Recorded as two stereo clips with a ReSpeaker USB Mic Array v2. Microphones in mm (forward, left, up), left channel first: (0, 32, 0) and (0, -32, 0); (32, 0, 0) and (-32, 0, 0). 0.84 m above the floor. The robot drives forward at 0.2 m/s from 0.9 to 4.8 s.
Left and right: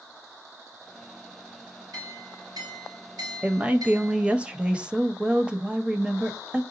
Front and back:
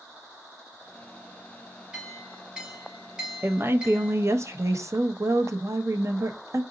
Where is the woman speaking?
145° right, 0.6 m; by 6.6 s 160° right, 0.8 m.